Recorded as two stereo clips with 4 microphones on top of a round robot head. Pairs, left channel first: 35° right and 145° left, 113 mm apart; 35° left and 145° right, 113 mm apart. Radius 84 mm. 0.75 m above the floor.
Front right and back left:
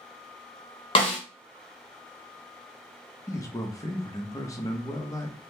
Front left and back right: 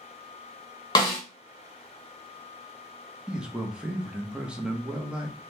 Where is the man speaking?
70° right, 0.8 m.